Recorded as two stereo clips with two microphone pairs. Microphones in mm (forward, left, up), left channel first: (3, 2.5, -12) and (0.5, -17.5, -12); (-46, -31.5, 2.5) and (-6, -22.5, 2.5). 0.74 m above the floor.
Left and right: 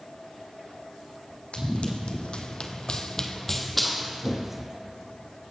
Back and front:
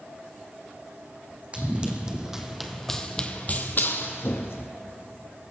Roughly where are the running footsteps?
Left.